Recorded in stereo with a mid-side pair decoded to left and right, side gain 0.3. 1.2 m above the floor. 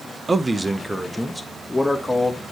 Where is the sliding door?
No sliding door in this recording.